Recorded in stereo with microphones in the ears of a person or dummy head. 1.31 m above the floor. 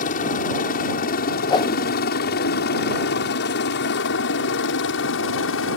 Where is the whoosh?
20° left (ahead or behind).